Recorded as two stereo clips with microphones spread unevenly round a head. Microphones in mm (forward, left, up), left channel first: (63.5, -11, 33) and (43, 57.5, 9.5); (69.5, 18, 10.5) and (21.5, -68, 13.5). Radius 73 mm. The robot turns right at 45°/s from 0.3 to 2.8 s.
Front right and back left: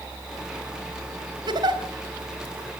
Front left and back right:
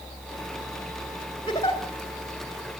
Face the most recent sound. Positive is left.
turn(degrees=180)